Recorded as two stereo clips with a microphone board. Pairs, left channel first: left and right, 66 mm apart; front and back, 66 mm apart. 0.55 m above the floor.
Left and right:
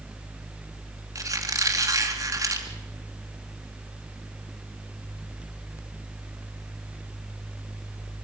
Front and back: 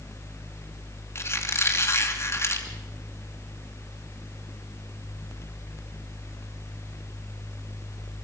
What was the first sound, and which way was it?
A squeak, 50° right.